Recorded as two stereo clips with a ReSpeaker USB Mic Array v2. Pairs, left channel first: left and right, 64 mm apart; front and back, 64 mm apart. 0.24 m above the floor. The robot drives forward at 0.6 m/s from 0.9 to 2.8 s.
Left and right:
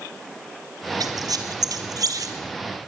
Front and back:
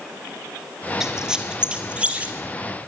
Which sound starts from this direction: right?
A squeak, at 1.0 s.